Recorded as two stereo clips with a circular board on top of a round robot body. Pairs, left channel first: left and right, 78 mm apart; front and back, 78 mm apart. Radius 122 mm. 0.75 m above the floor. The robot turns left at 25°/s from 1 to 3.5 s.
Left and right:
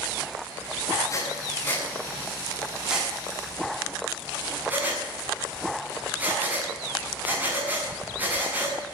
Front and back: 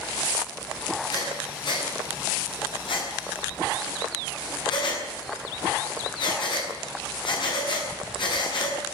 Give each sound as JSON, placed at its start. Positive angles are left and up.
{"t": 1.1, "sound": "breathing", "azimuth_deg": 40, "distance_m": 7.5}